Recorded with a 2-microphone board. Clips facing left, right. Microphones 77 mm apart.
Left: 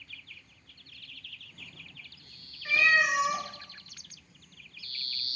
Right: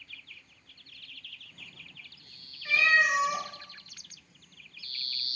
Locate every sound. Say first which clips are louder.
2.6 s a cat meowing: even; 15° left (ahead or behind), 0.9 m